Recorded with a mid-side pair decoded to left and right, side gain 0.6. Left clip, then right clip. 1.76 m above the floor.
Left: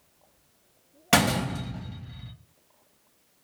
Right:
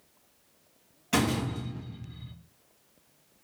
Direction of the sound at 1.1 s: 65° left.